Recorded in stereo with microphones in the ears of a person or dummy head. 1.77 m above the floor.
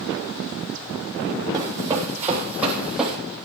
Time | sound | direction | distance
1.5 | running footsteps | 20° right (ahead or behind) | 4 m